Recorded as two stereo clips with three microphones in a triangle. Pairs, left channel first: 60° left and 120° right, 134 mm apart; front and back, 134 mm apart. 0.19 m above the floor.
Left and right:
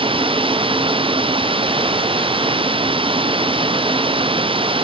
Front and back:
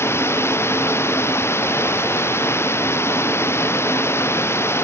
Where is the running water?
70° right.